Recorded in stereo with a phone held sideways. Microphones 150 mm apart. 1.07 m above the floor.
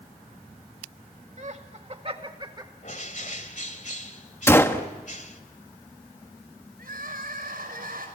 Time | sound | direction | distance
1.4 | laughter | 50° right (ahead or behind) | 2 m
2.8 | a bird | 55° left (ahead or behind) | 1.7 m
4.5 | a gunshot | 15° left (ahead or behind) | 1.3 m
6.8 | crying | 80° right | 6 m